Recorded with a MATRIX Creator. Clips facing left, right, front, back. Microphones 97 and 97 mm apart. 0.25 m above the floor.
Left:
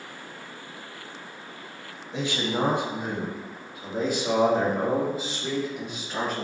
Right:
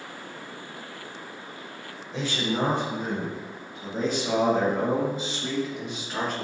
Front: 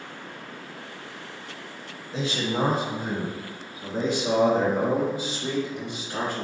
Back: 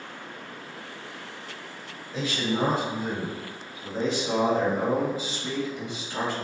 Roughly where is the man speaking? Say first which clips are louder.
Even, front 1 dB; ahead left.